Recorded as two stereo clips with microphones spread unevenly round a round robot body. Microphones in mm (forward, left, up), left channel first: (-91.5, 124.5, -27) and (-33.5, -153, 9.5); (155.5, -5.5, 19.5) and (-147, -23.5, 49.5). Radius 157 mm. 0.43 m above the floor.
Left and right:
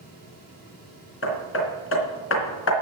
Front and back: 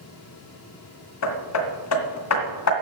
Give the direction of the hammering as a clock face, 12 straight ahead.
10 o'clock.